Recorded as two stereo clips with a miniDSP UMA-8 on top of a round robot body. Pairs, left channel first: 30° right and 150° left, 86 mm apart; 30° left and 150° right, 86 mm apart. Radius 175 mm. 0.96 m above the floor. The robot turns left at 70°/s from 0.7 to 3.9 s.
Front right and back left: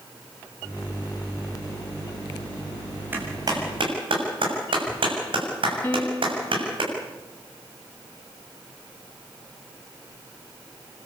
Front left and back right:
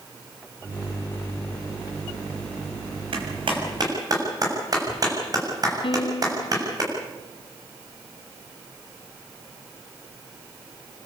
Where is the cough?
No cough in this recording.